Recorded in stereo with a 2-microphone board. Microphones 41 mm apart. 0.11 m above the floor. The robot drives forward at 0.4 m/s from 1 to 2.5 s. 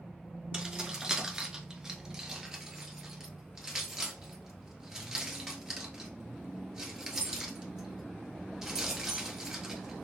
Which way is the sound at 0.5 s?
20° right (ahead or behind).